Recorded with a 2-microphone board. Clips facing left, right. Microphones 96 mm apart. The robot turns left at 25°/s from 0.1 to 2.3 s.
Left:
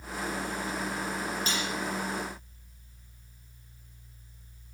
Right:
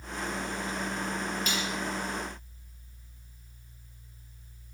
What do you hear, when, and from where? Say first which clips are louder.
1.5 s cutlery clinking: even; 35° left (ahead or behind), 5.5 m; by 1.7 s 40° left (ahead or behind), 5.5 m